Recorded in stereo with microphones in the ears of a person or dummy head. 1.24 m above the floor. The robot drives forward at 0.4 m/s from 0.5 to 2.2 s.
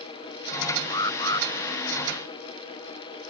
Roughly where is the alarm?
Left.